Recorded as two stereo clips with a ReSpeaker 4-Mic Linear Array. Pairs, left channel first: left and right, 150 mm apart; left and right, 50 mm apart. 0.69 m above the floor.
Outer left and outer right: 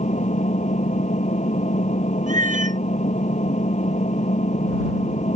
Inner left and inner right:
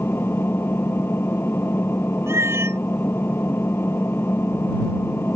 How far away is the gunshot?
No gunshot in this recording.